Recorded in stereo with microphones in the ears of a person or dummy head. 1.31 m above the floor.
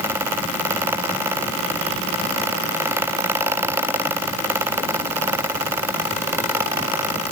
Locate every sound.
Only background noise.